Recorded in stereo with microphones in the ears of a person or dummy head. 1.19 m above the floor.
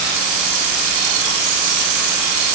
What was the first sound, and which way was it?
Only background noise.